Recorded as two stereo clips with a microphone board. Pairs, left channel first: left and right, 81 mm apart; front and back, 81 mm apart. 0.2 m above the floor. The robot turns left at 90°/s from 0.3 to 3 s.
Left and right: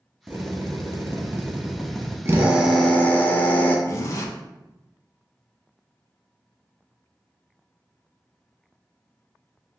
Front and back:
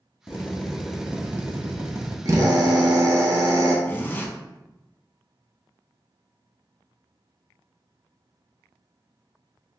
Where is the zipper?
60° left, 0.5 m.